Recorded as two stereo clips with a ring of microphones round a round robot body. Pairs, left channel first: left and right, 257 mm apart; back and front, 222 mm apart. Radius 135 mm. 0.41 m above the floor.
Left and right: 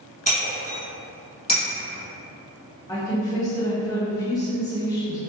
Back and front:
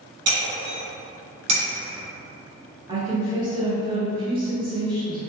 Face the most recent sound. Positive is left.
turn(degrees=30)